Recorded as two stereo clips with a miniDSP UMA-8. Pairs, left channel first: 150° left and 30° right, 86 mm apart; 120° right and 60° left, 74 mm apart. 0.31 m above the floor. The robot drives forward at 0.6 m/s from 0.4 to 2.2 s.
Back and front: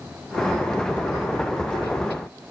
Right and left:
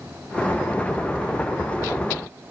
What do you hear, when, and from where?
Only background noise.